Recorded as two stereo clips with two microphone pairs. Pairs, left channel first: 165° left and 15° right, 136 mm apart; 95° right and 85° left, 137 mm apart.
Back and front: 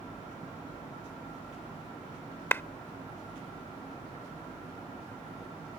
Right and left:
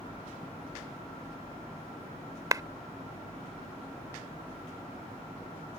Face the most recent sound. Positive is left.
turn(degrees=115)